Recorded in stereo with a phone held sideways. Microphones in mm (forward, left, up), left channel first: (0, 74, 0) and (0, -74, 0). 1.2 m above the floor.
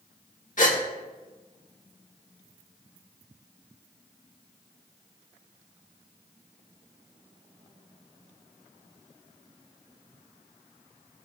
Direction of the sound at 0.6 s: 60° left (ahead or behind).